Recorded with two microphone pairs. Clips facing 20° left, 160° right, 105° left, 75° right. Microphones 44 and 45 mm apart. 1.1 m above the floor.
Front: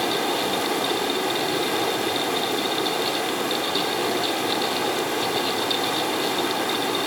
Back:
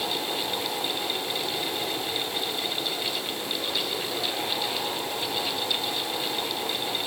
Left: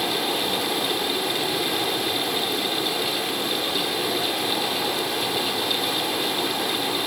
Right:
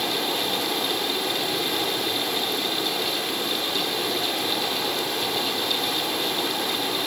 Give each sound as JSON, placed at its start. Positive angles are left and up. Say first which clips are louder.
{"t": 0.0, "sound": "running water", "louder": "front 6 dB, left 1 dB", "azimuth_deg": 15, "distance_m": 3.0}